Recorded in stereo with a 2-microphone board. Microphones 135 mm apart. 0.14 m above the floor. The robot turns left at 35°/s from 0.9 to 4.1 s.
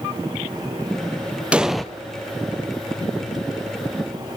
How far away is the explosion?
About 1.2 m.